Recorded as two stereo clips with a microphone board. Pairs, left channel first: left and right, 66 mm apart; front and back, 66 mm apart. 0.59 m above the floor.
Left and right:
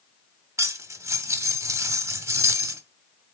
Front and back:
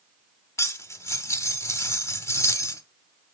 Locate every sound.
0.6 s cutlery clinking: 45° right, 0.8 m